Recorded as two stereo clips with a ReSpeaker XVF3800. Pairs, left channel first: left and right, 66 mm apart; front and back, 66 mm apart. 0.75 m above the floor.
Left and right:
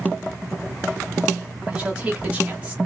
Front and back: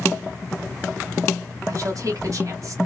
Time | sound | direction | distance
1.7 | a woman speaking | 160° right | 1.6 m